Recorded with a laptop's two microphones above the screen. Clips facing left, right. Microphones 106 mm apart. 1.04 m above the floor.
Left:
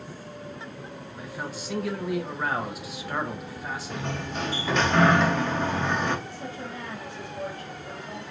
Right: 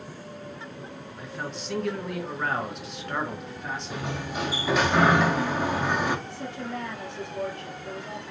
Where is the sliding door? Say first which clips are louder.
Even; 5° right (ahead or behind), 0.9 m.